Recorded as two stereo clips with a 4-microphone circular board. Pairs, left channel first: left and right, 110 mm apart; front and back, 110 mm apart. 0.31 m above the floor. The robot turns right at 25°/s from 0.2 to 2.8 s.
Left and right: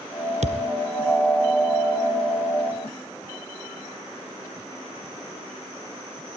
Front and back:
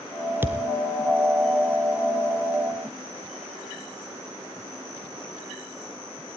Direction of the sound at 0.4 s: 105° right.